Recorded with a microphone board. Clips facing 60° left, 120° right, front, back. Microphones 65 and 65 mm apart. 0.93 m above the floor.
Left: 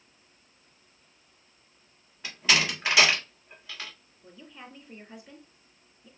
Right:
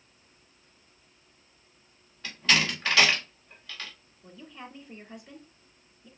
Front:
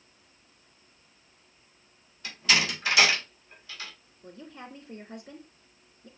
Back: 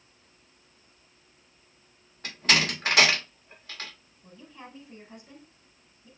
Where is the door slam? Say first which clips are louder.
Even, back 1 dB; 140° left, 1.9 m.